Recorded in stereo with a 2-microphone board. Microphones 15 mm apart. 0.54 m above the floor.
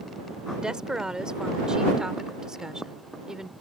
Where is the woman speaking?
55° right (ahead or behind); by 3.5 s 35° right (ahead or behind).